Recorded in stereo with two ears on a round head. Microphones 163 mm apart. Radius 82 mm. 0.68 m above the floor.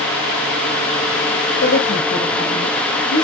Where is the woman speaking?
75° left (ahead or behind), 3.5 m.